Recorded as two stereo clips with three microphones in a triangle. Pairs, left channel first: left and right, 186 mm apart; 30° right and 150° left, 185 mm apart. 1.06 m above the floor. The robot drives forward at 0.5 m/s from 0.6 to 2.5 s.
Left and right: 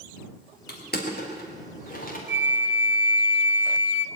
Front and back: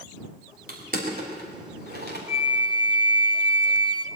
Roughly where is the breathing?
I don't hear breathing.